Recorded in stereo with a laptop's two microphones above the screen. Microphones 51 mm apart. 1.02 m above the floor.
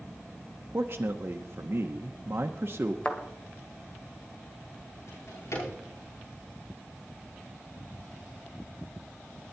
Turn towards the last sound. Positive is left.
turn(degrees=65)  # may be behind; listen again after turning